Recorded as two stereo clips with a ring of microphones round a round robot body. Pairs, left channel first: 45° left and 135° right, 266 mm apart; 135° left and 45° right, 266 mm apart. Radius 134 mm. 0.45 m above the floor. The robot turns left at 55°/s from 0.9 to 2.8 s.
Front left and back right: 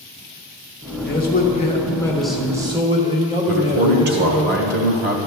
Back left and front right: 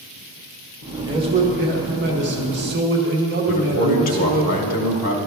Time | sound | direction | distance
1.1 | a man speaking | 20° left | 1.1 m
3.5 | a man speaking | 175° right | 1.5 m